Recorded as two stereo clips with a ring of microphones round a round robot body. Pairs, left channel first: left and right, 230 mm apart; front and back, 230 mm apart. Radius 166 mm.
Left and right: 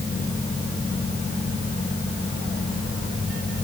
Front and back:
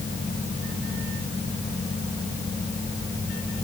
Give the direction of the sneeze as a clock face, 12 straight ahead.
No sneeze in this recording.